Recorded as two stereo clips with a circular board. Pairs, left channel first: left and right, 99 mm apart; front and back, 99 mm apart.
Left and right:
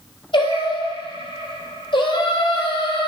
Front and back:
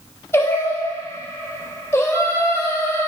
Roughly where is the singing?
Ahead left.